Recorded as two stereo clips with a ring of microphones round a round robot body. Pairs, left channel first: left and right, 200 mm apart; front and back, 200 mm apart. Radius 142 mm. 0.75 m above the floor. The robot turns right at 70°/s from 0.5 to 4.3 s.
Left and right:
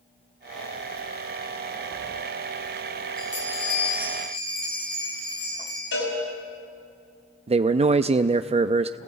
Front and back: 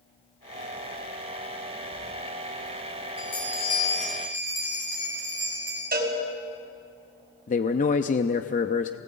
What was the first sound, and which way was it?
A bell, 25° left.